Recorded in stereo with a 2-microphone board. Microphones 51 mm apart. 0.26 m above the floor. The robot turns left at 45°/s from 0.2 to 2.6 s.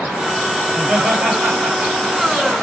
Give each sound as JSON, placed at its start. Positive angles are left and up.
{"t": 0.7, "sound": "laughter", "side_deg": -30, "distance_m": 1.3}